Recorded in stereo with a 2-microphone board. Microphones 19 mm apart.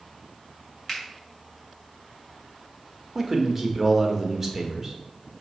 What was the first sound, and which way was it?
A finger snap, 15° left (ahead or behind).